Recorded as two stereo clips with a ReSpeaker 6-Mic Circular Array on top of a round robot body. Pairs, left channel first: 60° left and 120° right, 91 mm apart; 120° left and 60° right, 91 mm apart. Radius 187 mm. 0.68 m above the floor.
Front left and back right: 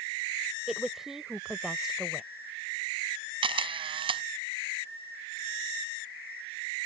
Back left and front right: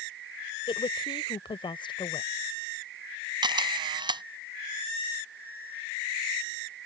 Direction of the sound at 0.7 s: 155° left.